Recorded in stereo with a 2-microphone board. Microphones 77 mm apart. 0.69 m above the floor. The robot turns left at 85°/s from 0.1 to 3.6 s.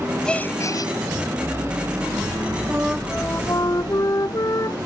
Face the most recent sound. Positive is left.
turn(degrees=130)